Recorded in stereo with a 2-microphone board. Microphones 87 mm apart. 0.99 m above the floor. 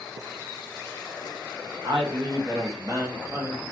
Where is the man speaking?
65° right (ahead or behind), 0.8 m; by 3.6 s 20° right (ahead or behind), 1.3 m.